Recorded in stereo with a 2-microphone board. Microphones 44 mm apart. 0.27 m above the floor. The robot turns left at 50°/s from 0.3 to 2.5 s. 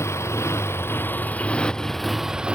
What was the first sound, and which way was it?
A motorcycle, 90° left.